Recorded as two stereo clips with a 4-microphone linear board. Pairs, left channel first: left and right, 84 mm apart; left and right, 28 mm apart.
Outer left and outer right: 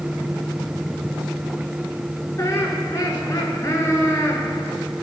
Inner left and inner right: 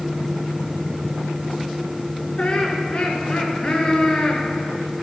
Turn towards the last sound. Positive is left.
turn(degrees=35)  # may be behind; listen again after turning